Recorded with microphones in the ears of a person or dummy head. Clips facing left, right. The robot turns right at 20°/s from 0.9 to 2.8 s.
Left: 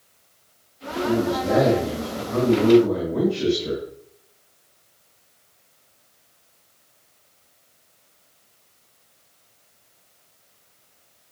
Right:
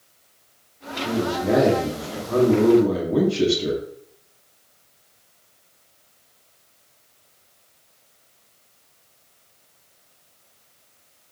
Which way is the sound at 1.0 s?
150° right.